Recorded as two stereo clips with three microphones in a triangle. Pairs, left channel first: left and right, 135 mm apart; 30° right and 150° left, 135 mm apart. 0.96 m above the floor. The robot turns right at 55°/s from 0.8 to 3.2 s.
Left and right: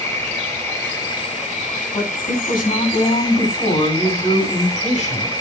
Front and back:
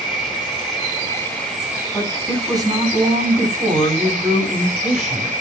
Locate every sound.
0.0 s an insect: 15° left, 8.5 m; by 5.4 s 150° left, 8.5 m
1.9 s a woman speaking: 50° left, 8.5 m; by 5.3 s 120° left, 8.5 m